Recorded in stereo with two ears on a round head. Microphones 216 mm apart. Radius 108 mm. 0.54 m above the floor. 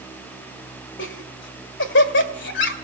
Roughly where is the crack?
No crack in this recording.